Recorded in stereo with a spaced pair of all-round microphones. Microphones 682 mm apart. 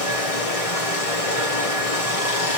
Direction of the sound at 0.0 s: 55° left (ahead or behind).